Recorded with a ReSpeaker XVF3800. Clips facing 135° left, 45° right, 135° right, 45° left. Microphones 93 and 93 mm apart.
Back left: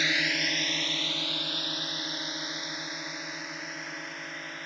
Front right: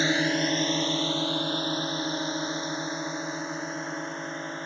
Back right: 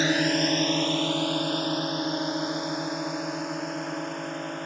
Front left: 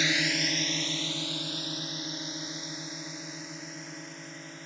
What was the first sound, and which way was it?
A drone, 95° right.